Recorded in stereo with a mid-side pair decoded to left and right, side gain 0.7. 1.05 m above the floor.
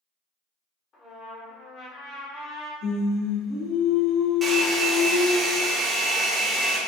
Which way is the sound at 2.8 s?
55° left.